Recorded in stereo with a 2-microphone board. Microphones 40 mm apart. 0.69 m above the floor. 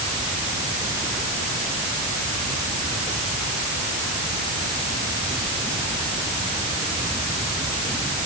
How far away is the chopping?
I don't hear chopping.